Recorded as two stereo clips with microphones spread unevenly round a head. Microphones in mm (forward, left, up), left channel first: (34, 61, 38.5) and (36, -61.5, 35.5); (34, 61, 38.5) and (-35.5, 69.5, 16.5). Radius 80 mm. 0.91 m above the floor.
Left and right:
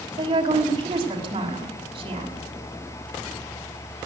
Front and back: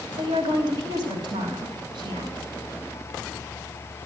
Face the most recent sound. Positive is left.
turn(degrees=-150)